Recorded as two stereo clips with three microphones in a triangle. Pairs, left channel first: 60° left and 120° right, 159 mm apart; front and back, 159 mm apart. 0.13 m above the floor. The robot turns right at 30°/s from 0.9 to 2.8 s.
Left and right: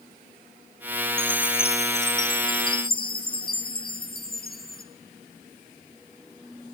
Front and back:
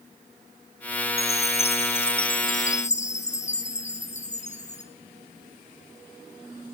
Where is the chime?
5° right, 1.9 m; by 4.8 s 45° left, 1.9 m.